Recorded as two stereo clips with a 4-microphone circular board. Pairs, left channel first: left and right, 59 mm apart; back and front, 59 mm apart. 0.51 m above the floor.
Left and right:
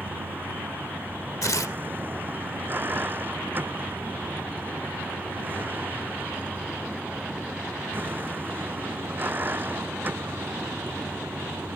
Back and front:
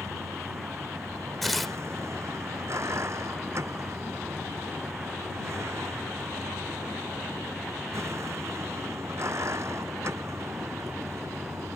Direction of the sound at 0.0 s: 35° right.